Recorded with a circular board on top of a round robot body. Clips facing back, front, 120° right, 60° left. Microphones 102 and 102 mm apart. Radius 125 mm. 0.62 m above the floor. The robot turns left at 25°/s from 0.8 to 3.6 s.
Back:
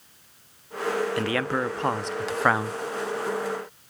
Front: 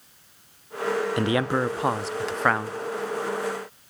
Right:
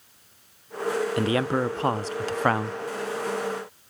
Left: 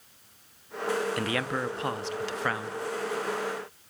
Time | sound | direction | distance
1.2 | a man speaking | 65° right | 1.0 m